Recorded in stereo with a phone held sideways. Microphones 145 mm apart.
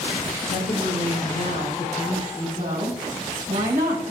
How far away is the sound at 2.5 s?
About 2 m.